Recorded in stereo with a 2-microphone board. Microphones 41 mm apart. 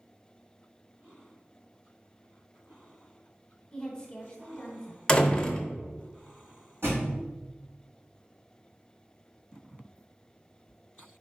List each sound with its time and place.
3.7 s a woman speaking: 25° left (ahead or behind), 0.9 m
5.1 s a door slam: 20° left (ahead or behind), 0.7 m
6.8 s a thud: 80° right, 2 m